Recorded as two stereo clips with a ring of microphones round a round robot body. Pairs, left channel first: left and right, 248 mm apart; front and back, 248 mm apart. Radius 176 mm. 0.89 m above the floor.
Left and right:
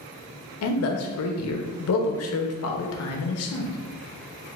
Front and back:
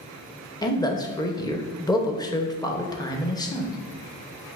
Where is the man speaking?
75° left, 0.8 m.